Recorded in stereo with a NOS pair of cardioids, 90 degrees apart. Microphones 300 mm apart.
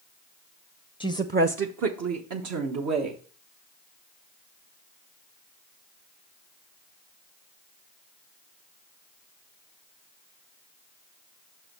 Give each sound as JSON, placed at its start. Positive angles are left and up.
{"t": 1.0, "sound": "a woman speaking", "azimuth_deg": -5, "distance_m": 0.6}